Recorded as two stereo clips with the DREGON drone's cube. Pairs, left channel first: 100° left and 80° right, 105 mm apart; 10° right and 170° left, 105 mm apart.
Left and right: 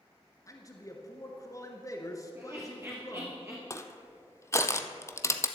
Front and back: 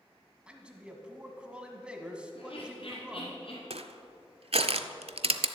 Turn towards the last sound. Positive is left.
turn(degrees=160)